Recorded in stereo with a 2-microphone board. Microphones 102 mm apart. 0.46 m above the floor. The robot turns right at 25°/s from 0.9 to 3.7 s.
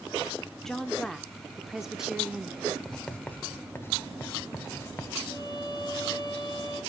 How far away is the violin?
About 1.6 m.